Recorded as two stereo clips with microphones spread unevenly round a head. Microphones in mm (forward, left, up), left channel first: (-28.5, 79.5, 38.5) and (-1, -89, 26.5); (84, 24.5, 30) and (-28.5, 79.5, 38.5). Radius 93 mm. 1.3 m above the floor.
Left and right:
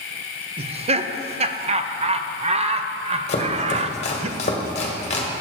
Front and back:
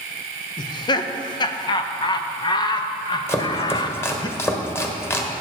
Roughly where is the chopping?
Ahead left.